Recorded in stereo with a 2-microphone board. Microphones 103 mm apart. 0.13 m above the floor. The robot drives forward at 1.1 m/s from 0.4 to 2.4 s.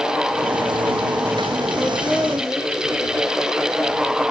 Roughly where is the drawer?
I don't hear a drawer.